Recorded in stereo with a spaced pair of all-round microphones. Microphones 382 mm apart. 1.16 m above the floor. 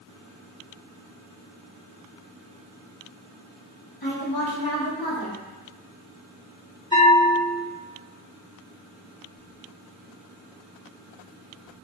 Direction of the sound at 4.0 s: 70° left (ahead or behind).